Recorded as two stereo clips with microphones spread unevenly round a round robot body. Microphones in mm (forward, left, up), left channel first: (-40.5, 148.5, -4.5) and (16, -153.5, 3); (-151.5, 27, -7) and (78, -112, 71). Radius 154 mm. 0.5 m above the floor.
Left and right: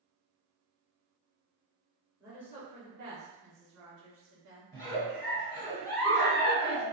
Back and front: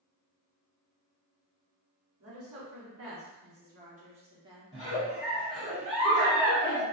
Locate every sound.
2.2 s a woman speaking: 5° right, 1.0 m; by 4.7 s 120° right, 1.2 m
4.7 s a giggle: 165° left, 1.4 m